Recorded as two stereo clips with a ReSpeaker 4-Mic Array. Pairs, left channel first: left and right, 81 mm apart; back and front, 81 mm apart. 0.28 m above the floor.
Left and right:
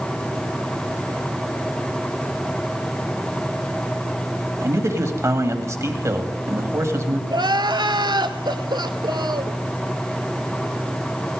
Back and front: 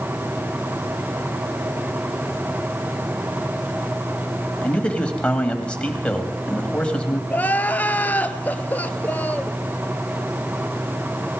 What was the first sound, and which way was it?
A man speaking, 110° right.